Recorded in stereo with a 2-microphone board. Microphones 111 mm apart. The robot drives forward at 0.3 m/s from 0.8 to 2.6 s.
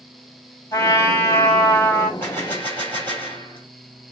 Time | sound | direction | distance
0.7 | a trumpet | 30° left (ahead or behind) | 1.8 m
2.2 | a gunshot | 20° left (ahead or behind) | 1.8 m